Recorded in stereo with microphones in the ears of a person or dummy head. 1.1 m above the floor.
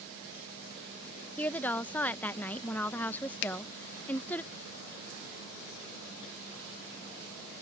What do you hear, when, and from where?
1.4 s a woman speaking: 10° left (ahead or behind)
3.4 s a finger snap: 60° left (ahead or behind)